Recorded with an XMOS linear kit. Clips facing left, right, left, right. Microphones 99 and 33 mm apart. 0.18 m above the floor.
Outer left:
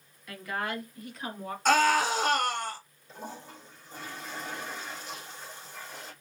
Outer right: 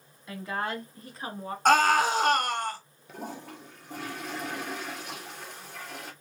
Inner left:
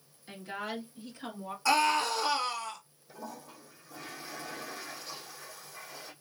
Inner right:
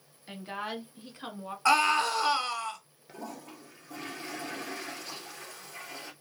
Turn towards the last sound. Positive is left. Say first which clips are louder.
# outer right 3 dB, inner right 2 dB
turn(degrees=-65)  # may be behind; listen again after turning